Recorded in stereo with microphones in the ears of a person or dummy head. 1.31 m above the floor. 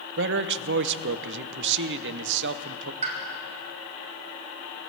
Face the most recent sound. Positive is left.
turn(degrees=-35)  # may be behind; listen again after turning